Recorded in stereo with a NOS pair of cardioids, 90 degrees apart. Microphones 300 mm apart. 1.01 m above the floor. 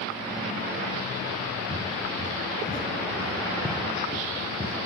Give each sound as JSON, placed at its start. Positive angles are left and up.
{"t": 1.7, "sound": "footsteps", "azimuth_deg": 10, "distance_m": 3.5}